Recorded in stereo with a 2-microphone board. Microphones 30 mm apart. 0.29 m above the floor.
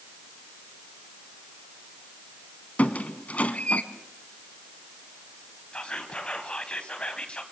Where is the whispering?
35° left (ahead or behind), 2.5 m.